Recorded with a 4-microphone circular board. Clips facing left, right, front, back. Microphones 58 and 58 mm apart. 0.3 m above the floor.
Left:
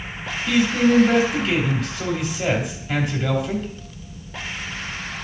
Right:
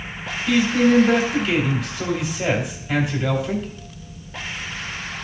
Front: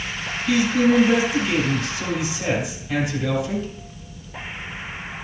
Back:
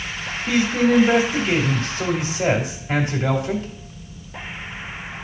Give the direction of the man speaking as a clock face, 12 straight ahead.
6 o'clock.